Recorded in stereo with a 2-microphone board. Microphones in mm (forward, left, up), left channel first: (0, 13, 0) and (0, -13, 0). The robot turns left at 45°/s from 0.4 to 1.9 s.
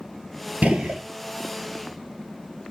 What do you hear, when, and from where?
0.6 s a gunshot: 60° right (ahead or behind), 0.8 m; by 1.0 s 45° right (ahead or behind), 0.8 m